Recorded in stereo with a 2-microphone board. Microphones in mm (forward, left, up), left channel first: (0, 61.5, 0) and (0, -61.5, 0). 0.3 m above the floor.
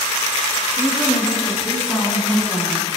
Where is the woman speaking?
20° left (ahead or behind), 4 m; by 2.9 s 15° right (ahead or behind), 2.5 m.